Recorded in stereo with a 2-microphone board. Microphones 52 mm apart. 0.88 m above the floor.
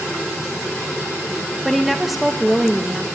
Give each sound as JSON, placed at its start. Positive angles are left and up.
{"t": 1.6, "sound": "a woman speaking", "side_deg": 0, "distance_m": 0.9}